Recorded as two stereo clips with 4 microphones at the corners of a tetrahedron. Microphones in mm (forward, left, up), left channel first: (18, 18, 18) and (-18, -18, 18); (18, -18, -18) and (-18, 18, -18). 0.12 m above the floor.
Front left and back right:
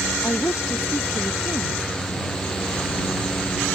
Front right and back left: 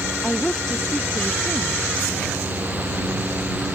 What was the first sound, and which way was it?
A woman speaking, 35° left.